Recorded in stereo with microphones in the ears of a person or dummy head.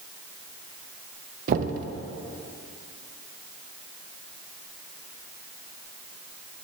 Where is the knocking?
50° right (ahead or behind), 0.5 m.